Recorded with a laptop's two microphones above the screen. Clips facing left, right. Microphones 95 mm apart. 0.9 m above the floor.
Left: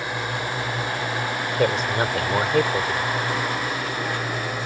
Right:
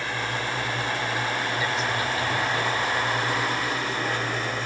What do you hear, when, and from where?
0.0 s a drone: 15° left (ahead or behind); by 4.7 s 10° left (ahead or behind)
1.6 s a man speaking: 65° left (ahead or behind)